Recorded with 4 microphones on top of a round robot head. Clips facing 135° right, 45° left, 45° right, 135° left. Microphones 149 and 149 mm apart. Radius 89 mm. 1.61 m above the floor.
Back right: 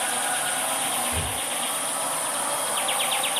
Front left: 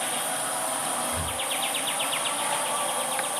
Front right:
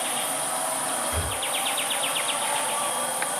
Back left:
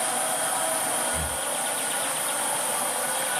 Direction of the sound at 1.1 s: 80° right.